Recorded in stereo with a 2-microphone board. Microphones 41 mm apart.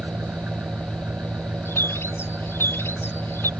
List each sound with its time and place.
0.0 s an engine running: 50° right (ahead or behind)
1.6 s a bird: 80° left